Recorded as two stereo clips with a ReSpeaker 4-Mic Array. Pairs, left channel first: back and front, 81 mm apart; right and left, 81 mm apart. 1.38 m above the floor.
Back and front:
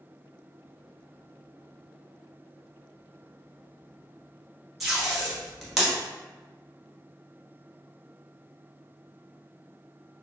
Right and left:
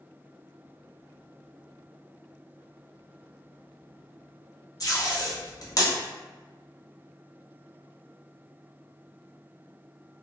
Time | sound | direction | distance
4.8 | tape being pulled | 85° right | 0.8 m